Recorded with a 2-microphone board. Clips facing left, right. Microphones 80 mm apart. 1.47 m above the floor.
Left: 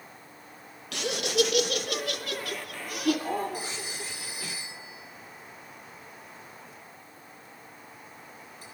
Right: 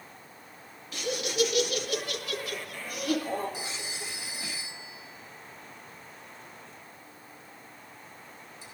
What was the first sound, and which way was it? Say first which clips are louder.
Laughter: left 3 dB; 75° left (ahead or behind).